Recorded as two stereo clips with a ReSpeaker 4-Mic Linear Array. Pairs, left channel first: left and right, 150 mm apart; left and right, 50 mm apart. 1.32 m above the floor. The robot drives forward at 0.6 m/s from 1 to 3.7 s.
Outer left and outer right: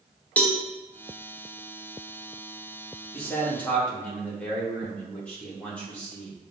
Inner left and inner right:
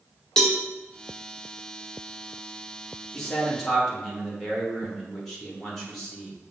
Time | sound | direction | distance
0.4 | a cowbell | 10° left (ahead or behind) | 1.0 m
3.1 | a man speaking | 10° left (ahead or behind) | 1.9 m